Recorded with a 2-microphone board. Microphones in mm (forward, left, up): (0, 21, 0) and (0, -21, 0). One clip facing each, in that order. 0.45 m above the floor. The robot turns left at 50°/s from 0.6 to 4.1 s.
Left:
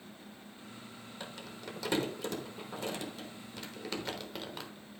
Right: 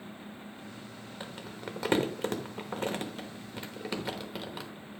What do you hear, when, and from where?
1.2 s crumpling: 20° right (ahead or behind), 1.1 m; by 4.7 s 10° right (ahead or behind), 1.1 m